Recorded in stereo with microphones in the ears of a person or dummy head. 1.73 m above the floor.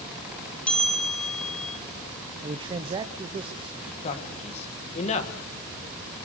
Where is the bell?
5° left (ahead or behind), 1.0 m.